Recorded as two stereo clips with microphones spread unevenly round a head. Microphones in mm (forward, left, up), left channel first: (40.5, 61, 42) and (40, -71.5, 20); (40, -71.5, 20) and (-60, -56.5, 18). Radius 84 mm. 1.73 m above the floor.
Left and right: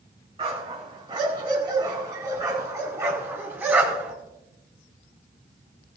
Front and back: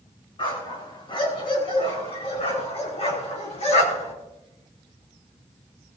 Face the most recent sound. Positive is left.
turn(degrees=-10)